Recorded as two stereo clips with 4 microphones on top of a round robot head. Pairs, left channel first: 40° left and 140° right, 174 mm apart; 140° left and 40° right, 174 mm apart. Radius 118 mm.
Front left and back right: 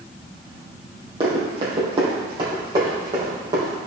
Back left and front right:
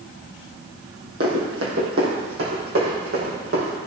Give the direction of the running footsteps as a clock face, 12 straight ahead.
3 o'clock.